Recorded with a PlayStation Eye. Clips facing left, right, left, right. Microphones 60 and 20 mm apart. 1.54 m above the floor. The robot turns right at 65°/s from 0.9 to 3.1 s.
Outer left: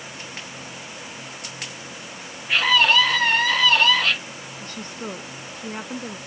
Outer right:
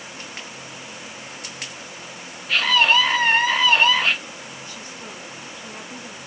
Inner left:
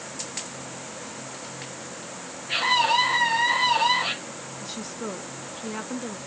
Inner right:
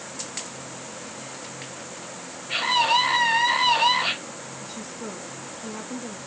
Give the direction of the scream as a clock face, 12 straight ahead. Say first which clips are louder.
Even, even; 7 o'clock.